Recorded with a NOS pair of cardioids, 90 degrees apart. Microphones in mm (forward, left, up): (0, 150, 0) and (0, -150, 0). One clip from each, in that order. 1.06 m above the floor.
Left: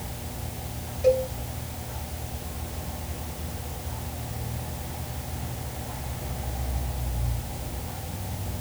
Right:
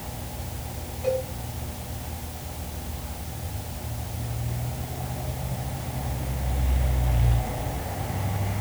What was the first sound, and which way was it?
A cowbell, 50° left.